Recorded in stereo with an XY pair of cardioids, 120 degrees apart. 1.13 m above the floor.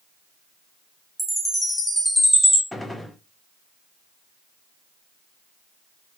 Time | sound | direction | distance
1.2 | a chime | straight ahead | 1.5 m
2.7 | a gunshot | 10° left | 0.9 m